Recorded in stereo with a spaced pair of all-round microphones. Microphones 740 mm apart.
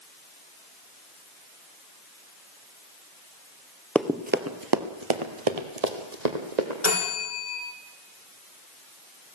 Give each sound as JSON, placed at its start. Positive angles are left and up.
{"t": 4.0, "sound": "running footsteps", "side_deg": 0, "distance_m": 1.4}
{"t": 6.8, "sound": "a bell", "side_deg": 70, "distance_m": 9.0}